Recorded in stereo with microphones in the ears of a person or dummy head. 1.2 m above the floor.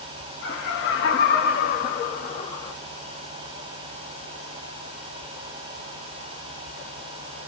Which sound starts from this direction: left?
Laughter, at 0.4 s.